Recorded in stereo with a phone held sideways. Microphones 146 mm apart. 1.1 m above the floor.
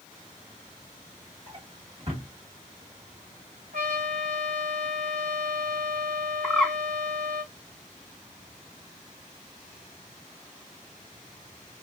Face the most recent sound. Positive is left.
turn(degrees=0)  # may be behind; listen again after turning